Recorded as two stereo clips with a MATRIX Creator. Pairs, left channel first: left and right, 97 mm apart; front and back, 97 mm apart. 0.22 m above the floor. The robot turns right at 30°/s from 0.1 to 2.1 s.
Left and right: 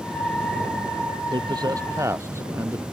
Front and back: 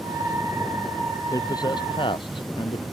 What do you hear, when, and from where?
1.3 s a man speaking: 55° right; by 2.8 s 30° right